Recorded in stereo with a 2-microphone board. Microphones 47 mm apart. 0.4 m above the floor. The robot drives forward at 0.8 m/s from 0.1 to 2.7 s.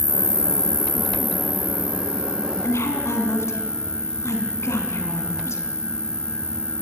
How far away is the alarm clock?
No alarm clock in this recording.